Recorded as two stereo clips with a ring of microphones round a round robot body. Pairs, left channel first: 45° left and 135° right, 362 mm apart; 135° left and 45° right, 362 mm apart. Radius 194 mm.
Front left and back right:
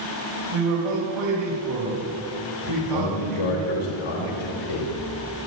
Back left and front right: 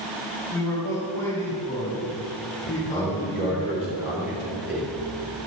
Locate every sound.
0.5 s a man speaking: 145° right, 4 m
2.7 s a man speaking: 40° left, 3.5 m